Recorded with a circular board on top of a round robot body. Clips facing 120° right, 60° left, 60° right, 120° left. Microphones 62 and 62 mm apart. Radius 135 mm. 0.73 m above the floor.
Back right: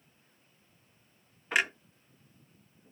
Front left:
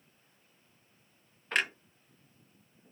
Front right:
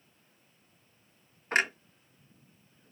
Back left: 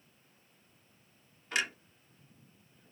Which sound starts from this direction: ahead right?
A clunk, at 1.5 s.